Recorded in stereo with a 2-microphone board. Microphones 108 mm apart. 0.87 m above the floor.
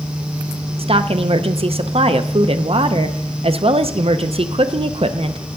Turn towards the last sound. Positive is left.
turn(degrees=-60)  # may be behind; listen again after turning